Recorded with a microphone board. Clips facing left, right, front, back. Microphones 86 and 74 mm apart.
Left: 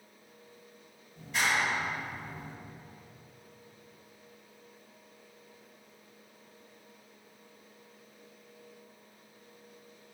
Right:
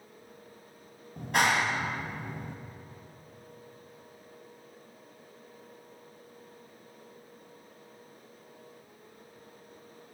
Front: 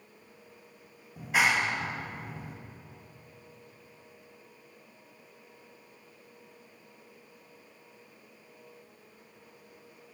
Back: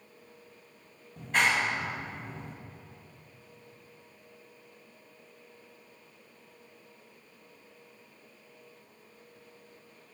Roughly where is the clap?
Right.